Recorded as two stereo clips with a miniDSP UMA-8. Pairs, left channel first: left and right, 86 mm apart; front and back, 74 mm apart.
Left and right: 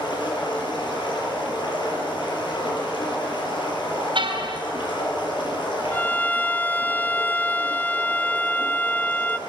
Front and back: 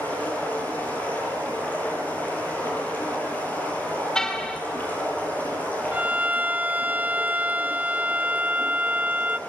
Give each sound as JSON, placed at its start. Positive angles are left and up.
{"t": 0.0, "sound": "running water", "azimuth_deg": 65, "distance_m": 7.5}
{"t": 4.2, "sound": "a car horn", "azimuth_deg": -75, "distance_m": 3.0}
{"t": 5.9, "sound": "a violin", "azimuth_deg": 135, "distance_m": 0.7}